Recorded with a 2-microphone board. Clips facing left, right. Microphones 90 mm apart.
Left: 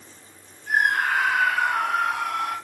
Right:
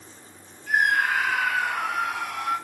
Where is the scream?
40° left (ahead or behind), 2 m; by 2.5 s 60° left (ahead or behind), 3 m.